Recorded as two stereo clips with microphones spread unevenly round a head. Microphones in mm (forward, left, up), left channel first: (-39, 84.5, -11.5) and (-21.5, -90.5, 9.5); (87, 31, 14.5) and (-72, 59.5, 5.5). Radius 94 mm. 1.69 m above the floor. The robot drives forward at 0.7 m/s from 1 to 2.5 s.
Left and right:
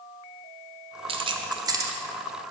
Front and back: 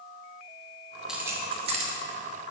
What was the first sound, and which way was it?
Keys jangling, 100° right.